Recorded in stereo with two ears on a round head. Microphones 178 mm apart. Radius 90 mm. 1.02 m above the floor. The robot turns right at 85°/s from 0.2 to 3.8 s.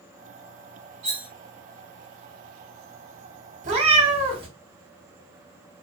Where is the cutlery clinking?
85° right, 1.1 m; by 1.3 s 65° right (ahead or behind), 1.1 m.